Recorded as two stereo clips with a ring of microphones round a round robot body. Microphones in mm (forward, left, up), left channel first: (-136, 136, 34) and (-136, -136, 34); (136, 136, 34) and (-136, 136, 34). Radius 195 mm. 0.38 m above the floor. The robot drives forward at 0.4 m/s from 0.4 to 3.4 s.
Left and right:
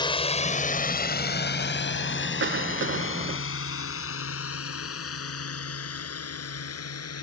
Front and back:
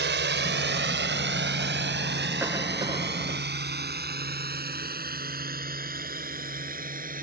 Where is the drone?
155° left; by 7.2 s 120° left.